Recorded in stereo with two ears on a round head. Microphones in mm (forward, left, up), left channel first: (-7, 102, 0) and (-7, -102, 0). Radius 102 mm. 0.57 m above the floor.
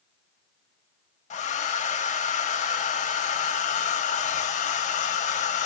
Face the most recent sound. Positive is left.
turn(degrees=30)  # may be behind; listen again after turning